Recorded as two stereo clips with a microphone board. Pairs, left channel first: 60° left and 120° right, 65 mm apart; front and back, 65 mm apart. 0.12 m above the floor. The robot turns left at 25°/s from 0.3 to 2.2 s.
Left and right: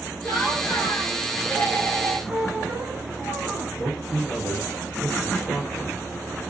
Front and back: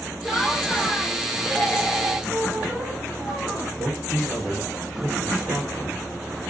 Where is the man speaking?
115° left, 1.7 m.